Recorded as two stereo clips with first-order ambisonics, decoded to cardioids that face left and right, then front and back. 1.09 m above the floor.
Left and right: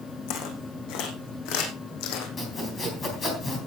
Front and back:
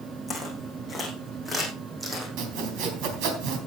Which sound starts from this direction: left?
Footsteps, at 0.3 s.